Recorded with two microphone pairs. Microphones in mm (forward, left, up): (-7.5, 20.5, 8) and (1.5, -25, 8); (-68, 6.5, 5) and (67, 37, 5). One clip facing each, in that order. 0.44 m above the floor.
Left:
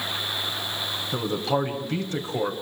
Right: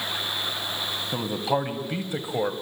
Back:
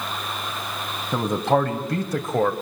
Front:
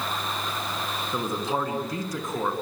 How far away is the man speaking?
About 3 m.